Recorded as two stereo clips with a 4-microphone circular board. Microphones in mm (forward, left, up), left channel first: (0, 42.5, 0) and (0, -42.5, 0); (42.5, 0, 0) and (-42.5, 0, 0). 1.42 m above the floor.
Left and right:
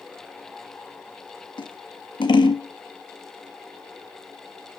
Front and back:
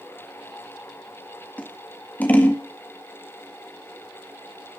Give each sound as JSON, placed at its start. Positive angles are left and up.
{"t": 1.6, "sound": "scissors", "azimuth_deg": 70, "distance_m": 1.7}